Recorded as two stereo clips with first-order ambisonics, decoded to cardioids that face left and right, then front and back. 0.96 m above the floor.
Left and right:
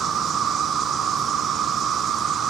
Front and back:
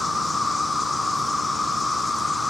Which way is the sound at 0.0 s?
75° right.